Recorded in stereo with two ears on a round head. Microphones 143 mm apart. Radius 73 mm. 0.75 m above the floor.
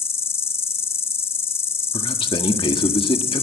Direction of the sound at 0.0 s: 15° left (ahead or behind).